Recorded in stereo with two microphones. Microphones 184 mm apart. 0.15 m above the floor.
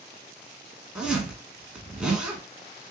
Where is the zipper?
5° right (ahead or behind), 1.7 m.